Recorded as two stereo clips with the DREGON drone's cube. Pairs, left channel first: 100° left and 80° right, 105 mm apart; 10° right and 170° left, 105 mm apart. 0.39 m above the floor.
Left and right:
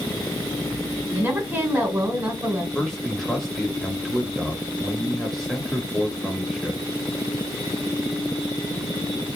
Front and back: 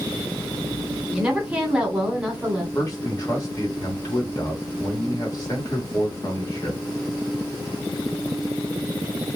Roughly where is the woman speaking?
Behind right.